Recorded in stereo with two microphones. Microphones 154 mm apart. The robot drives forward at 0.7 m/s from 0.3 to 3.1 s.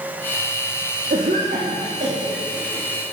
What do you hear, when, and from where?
1.1 s a cough: 60° right (ahead or behind), 1.3 m; by 2.8 s 40° right (ahead or behind), 1.7 m